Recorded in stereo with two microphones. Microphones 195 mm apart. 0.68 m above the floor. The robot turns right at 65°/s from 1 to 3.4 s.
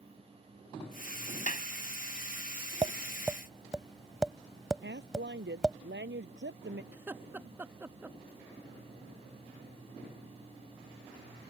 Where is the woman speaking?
65° right (ahead or behind).